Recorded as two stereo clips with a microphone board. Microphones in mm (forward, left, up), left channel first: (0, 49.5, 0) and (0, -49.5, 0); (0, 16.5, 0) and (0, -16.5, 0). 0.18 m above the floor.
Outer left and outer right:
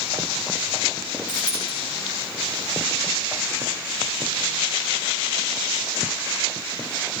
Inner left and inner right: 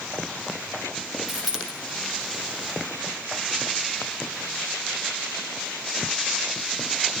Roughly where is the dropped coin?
Centre.